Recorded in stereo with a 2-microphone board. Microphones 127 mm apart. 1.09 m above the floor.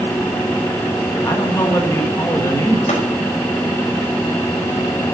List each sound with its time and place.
1.2 s a man speaking: 25° left (ahead or behind), 1.6 m
2.9 s tapping: 75° left (ahead or behind), 5 m